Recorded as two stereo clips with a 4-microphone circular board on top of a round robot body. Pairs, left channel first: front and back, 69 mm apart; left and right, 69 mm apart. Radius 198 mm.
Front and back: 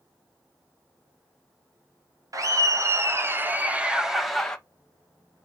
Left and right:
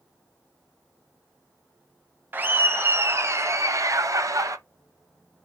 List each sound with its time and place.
2.3 s laughter: 150° right, 2.0 m; by 4.6 s 80° right, 1.4 m